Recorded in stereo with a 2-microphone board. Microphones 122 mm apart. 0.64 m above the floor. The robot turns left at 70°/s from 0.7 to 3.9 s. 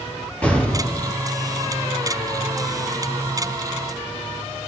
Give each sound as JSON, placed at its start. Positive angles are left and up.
{"t": 0.4, "sound": "an explosion", "azimuth_deg": 170, "distance_m": 4.5}